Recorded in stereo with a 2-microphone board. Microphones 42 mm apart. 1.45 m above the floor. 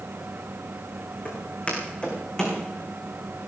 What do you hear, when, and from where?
1.2 s footsteps: 35° left (ahead or behind), 5 m; by 2.6 s 10° left (ahead or behind), 4.5 m